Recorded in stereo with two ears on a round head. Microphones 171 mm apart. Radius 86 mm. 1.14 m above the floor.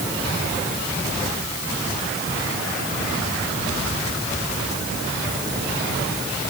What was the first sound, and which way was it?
Only background noise.